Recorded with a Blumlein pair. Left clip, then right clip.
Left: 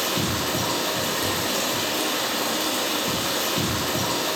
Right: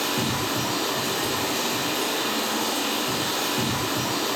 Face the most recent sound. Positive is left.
turn(degrees=55)